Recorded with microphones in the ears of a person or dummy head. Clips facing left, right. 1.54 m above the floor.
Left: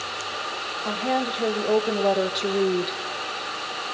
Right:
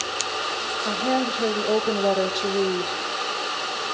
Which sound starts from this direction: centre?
A woman speaking, at 0.8 s.